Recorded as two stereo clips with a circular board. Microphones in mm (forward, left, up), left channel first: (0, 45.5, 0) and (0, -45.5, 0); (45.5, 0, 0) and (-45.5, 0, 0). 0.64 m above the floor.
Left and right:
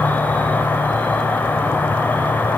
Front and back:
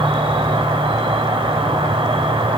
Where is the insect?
160° left, 0.8 m.